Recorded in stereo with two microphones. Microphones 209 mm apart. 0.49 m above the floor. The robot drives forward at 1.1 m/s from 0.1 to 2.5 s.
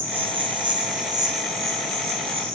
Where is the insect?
30° right (ahead or behind), 2.0 m; by 2.6 s 15° right (ahead or behind), 4.5 m.